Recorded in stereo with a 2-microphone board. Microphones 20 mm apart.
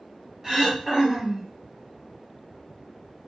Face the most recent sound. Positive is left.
turn(degrees=-30)  # may be behind; listen again after turning